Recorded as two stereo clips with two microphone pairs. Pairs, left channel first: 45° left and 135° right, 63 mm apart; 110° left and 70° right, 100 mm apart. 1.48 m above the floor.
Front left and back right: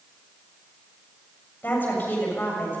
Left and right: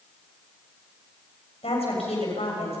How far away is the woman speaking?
About 7.5 m.